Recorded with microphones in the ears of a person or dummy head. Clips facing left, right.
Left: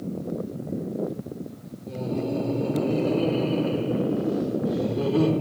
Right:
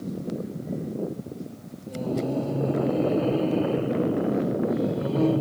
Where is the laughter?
35° left (ahead or behind), 6 m; by 5.3 s 75° left (ahead or behind), 5 m.